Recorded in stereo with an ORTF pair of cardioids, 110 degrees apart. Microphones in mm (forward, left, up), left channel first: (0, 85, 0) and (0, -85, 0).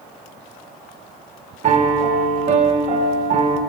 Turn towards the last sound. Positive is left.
turn(degrees=-45)